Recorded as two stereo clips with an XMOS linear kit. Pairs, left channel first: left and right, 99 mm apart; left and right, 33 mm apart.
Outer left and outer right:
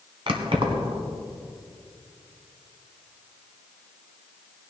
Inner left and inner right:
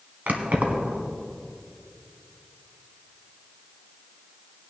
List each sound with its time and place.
0.3 s keys jangling: 65° right (ahead or behind), 1.5 m